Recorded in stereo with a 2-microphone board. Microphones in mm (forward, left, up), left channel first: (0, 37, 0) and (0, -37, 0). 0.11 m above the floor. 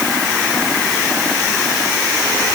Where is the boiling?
No boiling in this recording.